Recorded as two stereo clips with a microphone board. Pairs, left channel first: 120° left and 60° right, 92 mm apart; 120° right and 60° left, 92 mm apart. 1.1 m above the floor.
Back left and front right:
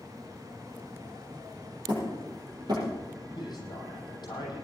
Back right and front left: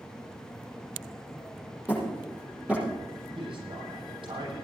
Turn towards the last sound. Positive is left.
turn(degrees=80)